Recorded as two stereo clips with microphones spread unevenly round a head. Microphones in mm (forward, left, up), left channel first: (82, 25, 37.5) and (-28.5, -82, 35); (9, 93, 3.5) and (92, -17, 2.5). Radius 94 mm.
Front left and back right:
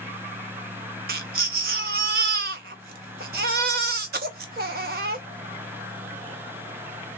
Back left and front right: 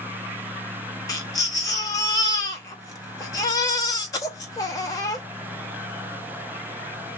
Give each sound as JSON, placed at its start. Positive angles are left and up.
{"t": 1.1, "sound": "a baby crying", "azimuth_deg": -165, "distance_m": 0.7}